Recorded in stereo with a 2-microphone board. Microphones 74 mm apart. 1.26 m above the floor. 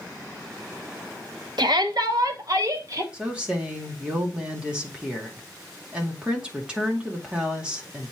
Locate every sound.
1.6 s a shout: 70° right (ahead or behind), 1.0 m; by 3.0 s 45° right (ahead or behind), 2 m
3.1 s a woman speaking: 10° right (ahead or behind), 2 m